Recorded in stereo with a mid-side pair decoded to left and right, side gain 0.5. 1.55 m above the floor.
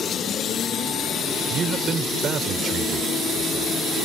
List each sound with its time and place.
1.5 s a man speaking: 45° right; by 3.7 s 50° right